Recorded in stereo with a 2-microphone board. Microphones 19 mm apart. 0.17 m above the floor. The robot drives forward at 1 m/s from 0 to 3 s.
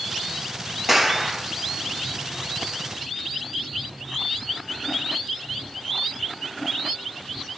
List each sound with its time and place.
0.9 s a clap: 20° right (ahead or behind), 3 m